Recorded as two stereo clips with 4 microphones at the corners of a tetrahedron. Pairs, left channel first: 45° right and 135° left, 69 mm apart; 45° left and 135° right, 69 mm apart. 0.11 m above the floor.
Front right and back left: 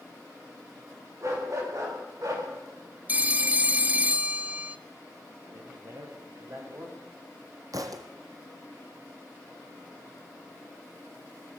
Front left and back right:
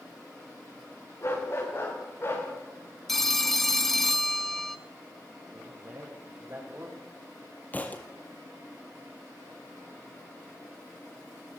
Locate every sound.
1.2 s a dog barking: 95° left, 7.5 m; by 2.5 s 100° left, 8.5 m
3.1 s a phone ringing: 125° left, 0.8 m
5.5 s a man speaking: 175° left, 7.5 m
7.7 s a thud: 110° left, 1.9 m